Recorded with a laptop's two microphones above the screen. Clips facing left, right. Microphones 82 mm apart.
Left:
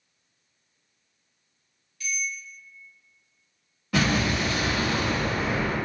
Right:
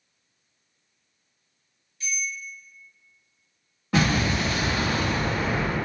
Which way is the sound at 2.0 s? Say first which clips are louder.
Even; 30° right (ahead or behind).